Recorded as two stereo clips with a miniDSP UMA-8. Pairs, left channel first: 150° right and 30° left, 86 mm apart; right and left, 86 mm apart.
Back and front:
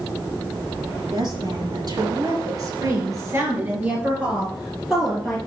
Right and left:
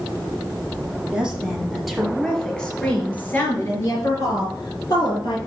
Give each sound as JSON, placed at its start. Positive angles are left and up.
{"t": 1.1, "sound": "a woman speaking", "azimuth_deg": 10, "distance_m": 4.0}